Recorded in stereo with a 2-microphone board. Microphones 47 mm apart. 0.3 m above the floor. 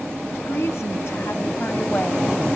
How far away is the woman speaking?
About 3 m.